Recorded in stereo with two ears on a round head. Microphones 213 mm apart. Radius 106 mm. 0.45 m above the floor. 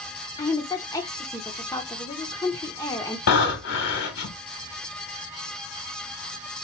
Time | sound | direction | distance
0.4 | a woman speaking | 15° left (ahead or behind) | 0.7 m
3.3 | breathing | 70° left (ahead or behind) | 1.8 m